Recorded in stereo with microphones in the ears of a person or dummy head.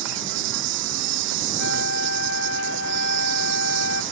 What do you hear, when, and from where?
0.0 s an insect: 70° right (ahead or behind)
1.6 s a flute: 65° left (ahead or behind)